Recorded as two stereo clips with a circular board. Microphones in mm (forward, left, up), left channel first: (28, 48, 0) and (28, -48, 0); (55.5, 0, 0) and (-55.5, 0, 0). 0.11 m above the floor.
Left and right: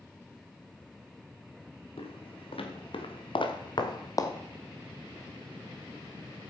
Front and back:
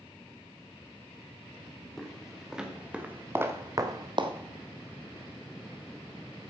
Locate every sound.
2.0 s footsteps: 90° left, 3 m; by 4.3 s 145° left, 1.6 m